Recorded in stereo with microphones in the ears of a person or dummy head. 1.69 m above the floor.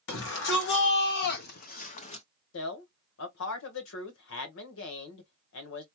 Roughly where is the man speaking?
Left.